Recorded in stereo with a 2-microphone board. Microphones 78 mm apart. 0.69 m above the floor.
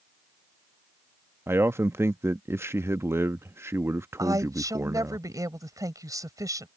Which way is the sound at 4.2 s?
50° right (ahead or behind).